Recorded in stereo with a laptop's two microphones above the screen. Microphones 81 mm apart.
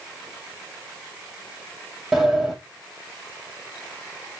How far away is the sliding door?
About 4 m.